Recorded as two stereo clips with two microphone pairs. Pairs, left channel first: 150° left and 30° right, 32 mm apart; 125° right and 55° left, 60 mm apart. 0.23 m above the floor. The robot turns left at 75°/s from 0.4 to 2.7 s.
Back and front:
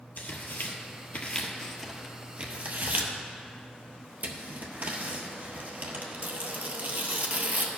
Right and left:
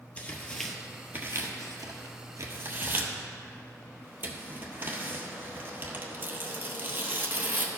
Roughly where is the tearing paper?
Behind.